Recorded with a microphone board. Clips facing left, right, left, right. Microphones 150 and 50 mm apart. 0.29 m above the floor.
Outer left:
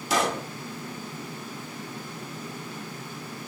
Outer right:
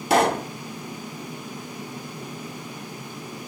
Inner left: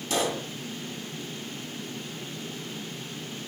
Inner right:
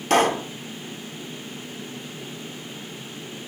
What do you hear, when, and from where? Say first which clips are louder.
0.1 s a pop: outer right 7 dB, inner right 9 dB; 60° right (ahead or behind), 1.0 m